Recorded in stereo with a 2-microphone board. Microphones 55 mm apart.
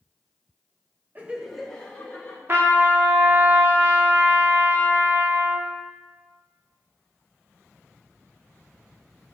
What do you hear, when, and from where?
1.1 s laughter: 30° right (ahead or behind), 0.6 m; by 2.4 s 25° left (ahead or behind), 1.4 m
2.5 s a trumpet: 40° right (ahead or behind), 0.6 m